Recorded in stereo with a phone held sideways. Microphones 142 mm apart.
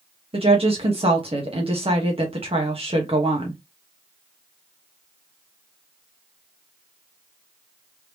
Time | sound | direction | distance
0.3 | a woman speaking | 40° right (ahead or behind) | 1.1 m